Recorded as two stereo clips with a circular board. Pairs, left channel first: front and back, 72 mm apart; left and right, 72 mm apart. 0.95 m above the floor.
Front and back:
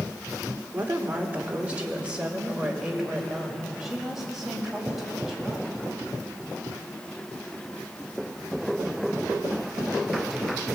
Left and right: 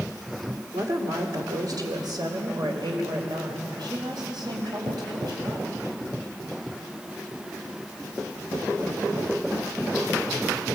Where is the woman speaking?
120° right, 3 m; by 5.7 s 95° right, 7.5 m.